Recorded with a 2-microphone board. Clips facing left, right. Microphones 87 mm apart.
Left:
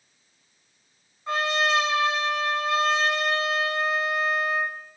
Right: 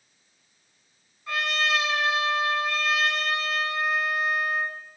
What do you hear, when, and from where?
1.3 s a trumpet: 30° left (ahead or behind), 3 m